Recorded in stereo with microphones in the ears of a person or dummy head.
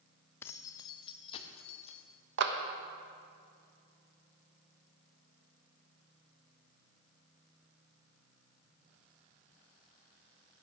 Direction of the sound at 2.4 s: 65° right (ahead or behind).